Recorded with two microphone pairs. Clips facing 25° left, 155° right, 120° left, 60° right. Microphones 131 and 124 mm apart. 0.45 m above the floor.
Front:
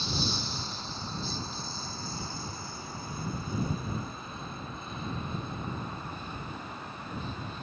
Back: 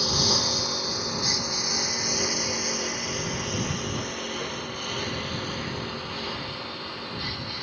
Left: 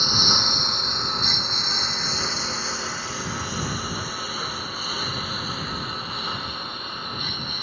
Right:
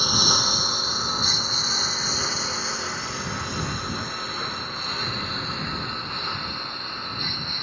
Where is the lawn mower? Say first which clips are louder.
Back 7 dB, right 1 dB; 140° right; by 7.6 s 155° right.